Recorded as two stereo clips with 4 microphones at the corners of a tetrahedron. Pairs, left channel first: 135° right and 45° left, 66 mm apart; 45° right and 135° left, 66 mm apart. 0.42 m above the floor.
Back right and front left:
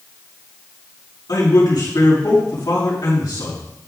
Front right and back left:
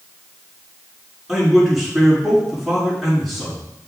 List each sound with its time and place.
1.3 s a man speaking: 140° right, 5 m